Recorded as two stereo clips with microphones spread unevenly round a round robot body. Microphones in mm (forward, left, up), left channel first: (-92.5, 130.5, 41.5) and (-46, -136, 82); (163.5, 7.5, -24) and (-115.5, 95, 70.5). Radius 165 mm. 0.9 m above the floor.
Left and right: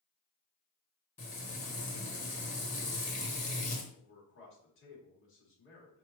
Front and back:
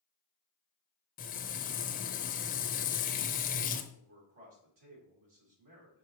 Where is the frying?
50° left, 0.6 m.